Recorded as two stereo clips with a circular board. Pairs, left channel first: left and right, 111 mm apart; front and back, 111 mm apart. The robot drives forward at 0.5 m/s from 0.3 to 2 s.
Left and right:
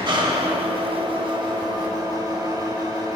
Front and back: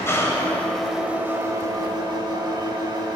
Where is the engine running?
60° right, 0.7 m; by 3.2 s 140° right, 0.9 m.